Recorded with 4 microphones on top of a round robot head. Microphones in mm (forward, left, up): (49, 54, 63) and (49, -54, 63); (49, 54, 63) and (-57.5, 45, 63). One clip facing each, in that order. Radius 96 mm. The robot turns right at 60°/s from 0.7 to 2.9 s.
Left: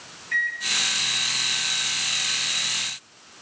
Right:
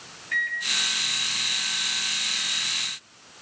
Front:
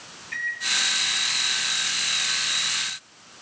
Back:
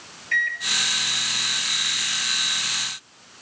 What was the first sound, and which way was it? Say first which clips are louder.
A microwave: left 1 dB, back 7 dB; straight behind.